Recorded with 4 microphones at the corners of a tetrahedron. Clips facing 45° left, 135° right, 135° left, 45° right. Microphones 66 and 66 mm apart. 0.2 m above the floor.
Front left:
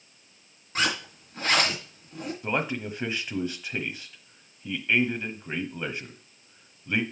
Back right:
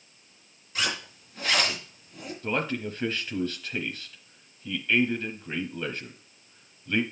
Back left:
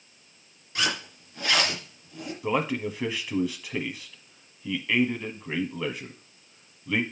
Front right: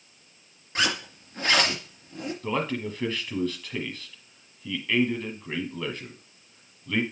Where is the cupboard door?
I don't hear a cupboard door.